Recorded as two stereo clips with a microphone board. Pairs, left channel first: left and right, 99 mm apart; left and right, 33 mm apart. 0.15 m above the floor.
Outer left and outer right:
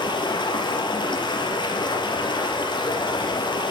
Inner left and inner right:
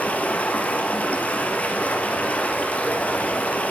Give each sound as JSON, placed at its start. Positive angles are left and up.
{"t": 0.0, "sound": "running water", "side_deg": 55, "distance_m": 3.5}